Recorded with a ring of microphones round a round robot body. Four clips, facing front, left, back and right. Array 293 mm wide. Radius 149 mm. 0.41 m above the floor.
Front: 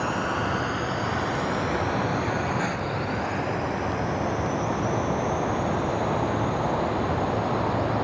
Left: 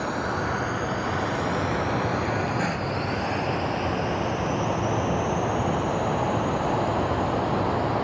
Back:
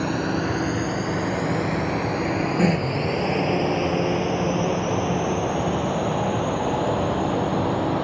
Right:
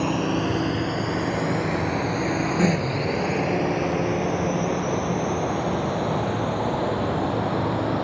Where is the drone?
125° right; by 8.1 s 150° right.